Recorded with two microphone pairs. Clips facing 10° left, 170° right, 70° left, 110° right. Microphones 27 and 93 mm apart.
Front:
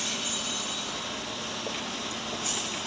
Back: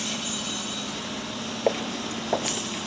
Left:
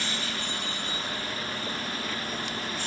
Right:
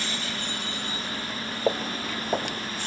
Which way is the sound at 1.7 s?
140° right.